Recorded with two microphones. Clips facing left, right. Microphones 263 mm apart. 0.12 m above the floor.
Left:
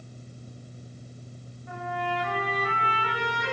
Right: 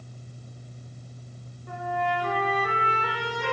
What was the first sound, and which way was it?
A trumpet, 45° right (ahead or behind).